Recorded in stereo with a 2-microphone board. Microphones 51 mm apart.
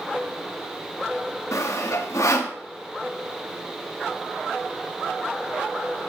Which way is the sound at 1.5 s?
80° left.